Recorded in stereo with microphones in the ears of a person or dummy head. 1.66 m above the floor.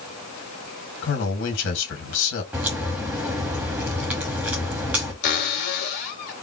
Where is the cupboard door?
60° left (ahead or behind), 2.5 m.